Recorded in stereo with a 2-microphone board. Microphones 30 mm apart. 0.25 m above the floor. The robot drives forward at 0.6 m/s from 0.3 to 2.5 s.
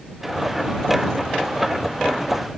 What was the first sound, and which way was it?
Only background noise.